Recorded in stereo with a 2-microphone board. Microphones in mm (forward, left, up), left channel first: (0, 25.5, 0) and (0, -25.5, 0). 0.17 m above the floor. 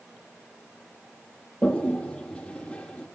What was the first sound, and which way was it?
A toilet flushing, 15° left (ahead or behind).